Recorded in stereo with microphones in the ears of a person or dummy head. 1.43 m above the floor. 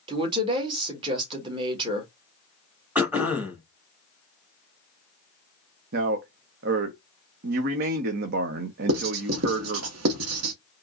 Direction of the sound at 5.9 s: 60° right (ahead or behind).